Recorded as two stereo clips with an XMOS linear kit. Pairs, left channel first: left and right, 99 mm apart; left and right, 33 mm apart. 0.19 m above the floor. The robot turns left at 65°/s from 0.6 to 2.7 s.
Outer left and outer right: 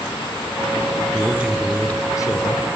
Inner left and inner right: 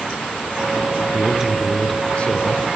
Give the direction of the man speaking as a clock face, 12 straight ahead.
5 o'clock.